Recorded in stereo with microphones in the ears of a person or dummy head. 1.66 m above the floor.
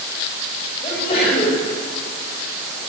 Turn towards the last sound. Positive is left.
turn(degrees=35)  # may be behind; listen again after turning